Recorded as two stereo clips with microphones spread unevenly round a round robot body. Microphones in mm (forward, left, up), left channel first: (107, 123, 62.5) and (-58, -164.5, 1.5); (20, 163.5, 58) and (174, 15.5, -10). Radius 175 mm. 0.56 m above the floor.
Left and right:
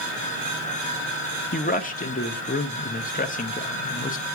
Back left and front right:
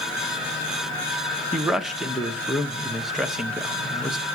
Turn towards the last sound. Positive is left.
turn(degrees=0)